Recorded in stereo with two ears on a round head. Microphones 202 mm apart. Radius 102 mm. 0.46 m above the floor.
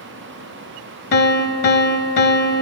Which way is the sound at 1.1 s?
50° left (ahead or behind).